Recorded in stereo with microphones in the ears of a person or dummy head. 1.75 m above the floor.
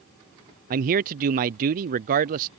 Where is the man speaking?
45° right (ahead or behind).